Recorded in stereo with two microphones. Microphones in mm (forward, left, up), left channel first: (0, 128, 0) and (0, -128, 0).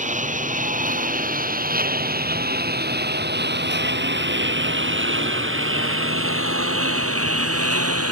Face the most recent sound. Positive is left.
turn(degrees=-65)  # may be behind; listen again after turning